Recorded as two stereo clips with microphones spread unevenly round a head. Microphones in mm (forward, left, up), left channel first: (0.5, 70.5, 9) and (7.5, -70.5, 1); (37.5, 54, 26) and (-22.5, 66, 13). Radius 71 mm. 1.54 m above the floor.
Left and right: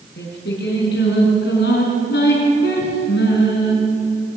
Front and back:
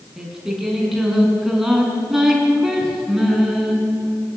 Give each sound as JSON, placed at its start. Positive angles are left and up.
{"t": 0.2, "sound": "singing", "azimuth_deg": 80, "distance_m": 5.0}